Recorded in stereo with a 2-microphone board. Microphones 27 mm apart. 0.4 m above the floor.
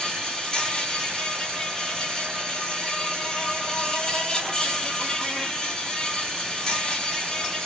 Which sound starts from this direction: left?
An insect, at 0.0 s.